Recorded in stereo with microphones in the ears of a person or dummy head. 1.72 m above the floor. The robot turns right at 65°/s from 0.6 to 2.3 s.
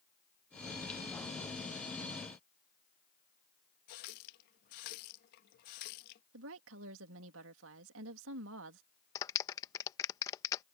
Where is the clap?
20° left (ahead or behind).